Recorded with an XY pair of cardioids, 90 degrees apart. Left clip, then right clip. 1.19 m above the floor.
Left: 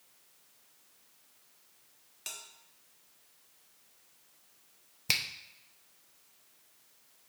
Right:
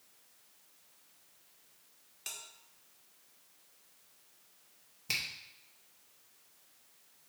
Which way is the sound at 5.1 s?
70° left.